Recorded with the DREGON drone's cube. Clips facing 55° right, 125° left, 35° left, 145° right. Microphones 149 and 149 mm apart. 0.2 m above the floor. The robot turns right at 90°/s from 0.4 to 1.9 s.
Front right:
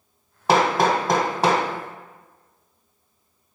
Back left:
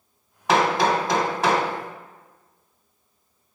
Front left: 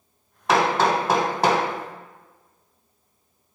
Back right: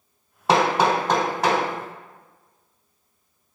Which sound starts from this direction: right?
Hammering, at 0.5 s.